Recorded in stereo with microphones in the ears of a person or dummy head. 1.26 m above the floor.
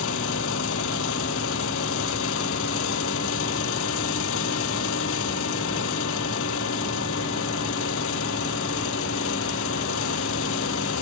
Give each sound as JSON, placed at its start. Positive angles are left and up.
{"t": 0.0, "sound": "an engine running", "side_deg": 70}